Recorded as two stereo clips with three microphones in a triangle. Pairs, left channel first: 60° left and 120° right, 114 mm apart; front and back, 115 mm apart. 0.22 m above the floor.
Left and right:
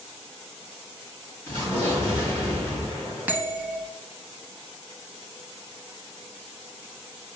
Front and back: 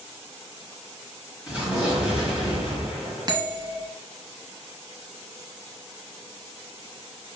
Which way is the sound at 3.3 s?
175° left.